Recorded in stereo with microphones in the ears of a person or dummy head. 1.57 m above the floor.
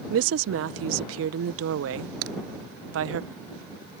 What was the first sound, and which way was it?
A woman speaking, 80° right.